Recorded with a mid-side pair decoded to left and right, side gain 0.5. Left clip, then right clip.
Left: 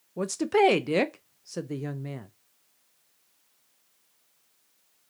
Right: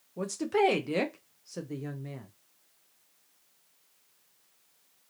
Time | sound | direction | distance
0.2 | a woman speaking | 35° left | 0.5 m